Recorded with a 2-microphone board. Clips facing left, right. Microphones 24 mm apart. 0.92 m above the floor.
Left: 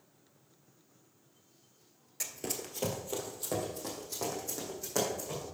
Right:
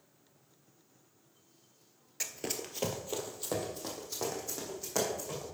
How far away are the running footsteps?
About 1.0 m.